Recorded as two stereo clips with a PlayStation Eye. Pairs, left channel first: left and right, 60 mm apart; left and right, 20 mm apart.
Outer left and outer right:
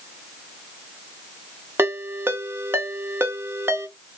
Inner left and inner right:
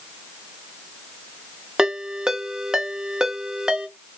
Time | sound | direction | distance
1.8 | a ringtone | 45° right (ahead or behind) | 0.6 m